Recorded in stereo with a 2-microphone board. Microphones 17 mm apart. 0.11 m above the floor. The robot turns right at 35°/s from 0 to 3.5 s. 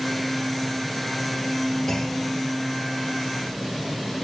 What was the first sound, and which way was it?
A clunk, 35° left (ahead or behind).